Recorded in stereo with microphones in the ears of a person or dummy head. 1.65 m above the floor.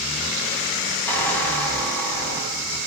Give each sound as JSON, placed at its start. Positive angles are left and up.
{"t": 1.1, "sound": "a squeak", "side_deg": 10, "distance_m": 6.5}